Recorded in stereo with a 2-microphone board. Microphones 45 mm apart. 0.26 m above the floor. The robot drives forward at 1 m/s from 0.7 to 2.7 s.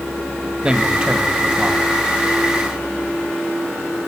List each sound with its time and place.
0.6 s a man speaking: 20° right (ahead or behind), 1.2 m; by 1.9 s 15° right (ahead or behind), 1.8 m